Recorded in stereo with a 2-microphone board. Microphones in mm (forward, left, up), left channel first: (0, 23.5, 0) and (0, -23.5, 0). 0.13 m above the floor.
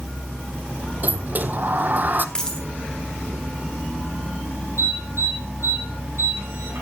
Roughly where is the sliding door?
Right.